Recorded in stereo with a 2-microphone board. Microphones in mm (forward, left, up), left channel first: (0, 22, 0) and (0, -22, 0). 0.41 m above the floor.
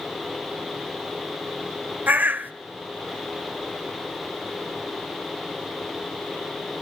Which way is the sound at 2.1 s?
45° right (ahead or behind).